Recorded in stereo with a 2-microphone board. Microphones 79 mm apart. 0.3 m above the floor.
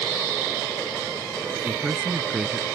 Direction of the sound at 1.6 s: 10° right (ahead or behind).